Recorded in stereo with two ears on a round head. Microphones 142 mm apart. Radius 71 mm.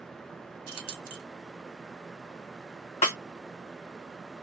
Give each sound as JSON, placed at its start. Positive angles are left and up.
{"t": 0.7, "sound": "keys jangling", "side_deg": -30, "distance_m": 1.6}
{"t": 3.0, "sound": "a snare drum", "side_deg": 40, "distance_m": 1.8}